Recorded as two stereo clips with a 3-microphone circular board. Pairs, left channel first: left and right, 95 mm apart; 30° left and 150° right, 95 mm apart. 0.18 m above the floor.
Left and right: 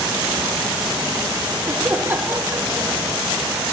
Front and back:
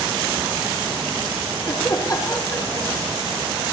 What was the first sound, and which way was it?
Laughter, 20° right.